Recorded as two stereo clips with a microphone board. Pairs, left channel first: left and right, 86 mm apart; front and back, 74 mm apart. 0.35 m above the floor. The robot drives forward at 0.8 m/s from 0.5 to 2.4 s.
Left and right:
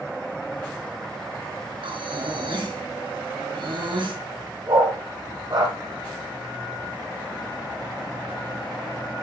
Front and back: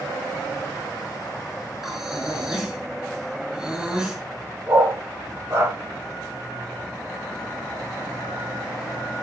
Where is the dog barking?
125° right, 6 m.